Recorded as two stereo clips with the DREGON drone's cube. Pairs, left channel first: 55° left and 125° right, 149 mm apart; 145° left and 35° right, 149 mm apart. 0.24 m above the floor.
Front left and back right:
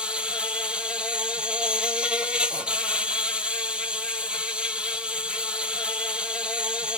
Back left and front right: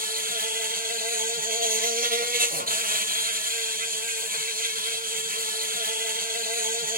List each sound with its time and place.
0.0 s an insect: 40° right, 1.0 m